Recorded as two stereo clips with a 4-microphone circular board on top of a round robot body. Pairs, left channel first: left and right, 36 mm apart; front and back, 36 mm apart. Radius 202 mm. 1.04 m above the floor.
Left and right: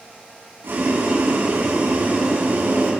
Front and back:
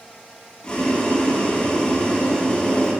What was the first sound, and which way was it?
Boiling, 65° right.